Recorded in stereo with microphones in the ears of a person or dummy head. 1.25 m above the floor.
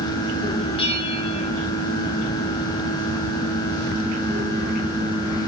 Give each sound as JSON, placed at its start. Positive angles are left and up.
{"t": 0.8, "sound": "a bell", "side_deg": 30, "distance_m": 3.0}